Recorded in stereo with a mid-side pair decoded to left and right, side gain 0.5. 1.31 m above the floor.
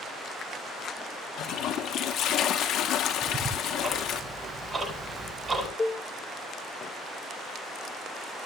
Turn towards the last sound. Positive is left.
turn(degrees=25)